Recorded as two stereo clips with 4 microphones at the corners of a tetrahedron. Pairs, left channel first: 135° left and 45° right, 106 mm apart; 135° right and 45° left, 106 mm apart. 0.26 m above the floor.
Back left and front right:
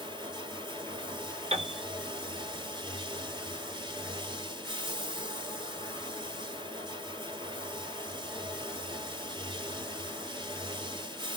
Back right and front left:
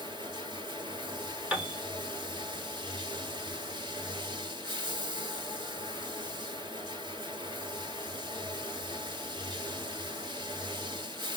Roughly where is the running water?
Ahead.